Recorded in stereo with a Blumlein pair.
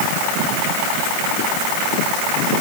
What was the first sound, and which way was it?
Only background noise.